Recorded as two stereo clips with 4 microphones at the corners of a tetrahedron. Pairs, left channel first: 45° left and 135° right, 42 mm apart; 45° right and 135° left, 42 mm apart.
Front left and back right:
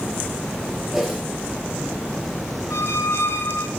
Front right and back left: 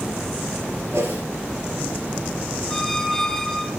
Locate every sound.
0.9 s a whoosh: 140° left, 4.5 m
2.7 s a squeak: 35° left, 1.1 m